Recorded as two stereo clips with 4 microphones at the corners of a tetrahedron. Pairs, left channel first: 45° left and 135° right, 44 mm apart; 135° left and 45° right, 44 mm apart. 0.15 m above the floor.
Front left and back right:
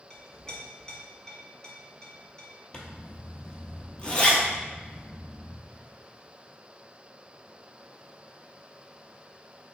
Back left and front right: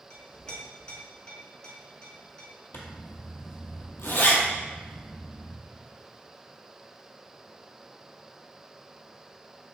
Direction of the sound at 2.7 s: 110° left.